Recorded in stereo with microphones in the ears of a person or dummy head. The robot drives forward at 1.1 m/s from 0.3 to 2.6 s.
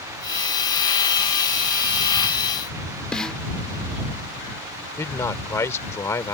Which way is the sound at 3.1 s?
Centre (ahead or behind).